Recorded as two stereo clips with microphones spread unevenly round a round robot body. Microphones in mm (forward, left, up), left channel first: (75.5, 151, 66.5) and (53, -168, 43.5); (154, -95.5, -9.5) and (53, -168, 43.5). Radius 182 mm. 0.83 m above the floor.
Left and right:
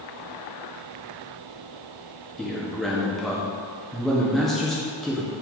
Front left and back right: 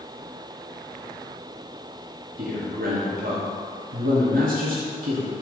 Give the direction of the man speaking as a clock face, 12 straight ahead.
6 o'clock.